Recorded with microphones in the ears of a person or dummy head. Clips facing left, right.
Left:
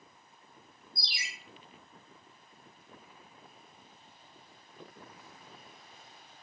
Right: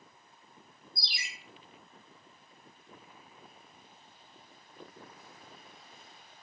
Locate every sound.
1.0 s a ringtone: 45° right (ahead or behind), 0.9 m